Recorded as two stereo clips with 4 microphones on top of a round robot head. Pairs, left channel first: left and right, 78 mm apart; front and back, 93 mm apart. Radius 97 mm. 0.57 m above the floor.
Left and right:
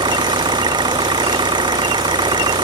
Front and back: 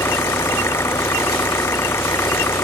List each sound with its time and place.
0.0 s an engine running: 65° right